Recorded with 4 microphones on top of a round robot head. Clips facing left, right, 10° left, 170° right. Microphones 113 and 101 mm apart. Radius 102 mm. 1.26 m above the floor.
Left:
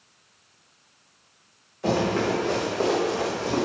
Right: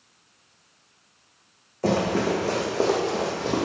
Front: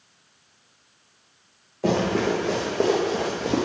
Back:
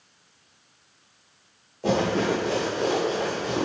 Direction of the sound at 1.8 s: 45° right.